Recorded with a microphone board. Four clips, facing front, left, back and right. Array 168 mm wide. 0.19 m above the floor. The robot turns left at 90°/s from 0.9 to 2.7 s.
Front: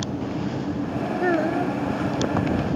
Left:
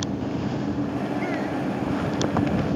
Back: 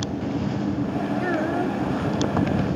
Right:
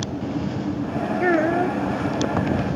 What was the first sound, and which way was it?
A child speaking, 55° right.